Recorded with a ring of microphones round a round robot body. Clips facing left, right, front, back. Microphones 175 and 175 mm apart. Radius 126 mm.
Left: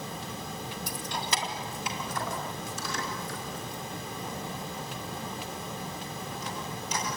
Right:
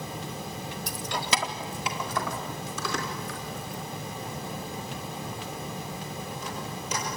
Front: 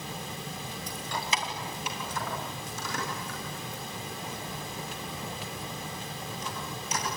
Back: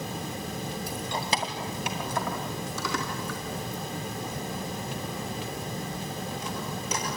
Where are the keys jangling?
95° right, 1.5 m; by 7.1 s 150° right, 10 m.